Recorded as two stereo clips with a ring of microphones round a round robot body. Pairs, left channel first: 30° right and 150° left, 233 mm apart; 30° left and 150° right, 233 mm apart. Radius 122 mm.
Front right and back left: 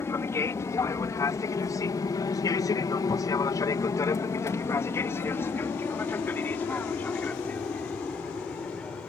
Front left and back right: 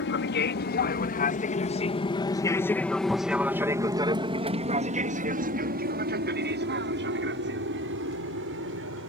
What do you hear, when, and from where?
0.0 s an aircraft: 45° left; by 9.1 s 115° right